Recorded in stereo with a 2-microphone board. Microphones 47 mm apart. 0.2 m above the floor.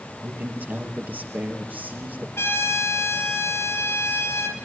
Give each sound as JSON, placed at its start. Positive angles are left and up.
{"t": 0.2, "sound": "a man speaking", "side_deg": -40, "distance_m": 5.0}
{"t": 2.4, "sound": "a trumpet", "side_deg": 60, "distance_m": 5.5}